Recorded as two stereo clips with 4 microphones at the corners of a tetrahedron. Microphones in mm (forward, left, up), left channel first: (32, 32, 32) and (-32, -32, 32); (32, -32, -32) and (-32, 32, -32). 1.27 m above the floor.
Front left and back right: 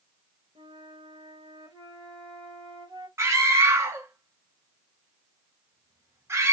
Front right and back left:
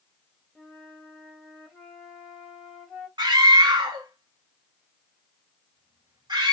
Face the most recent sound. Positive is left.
turn(degrees=170)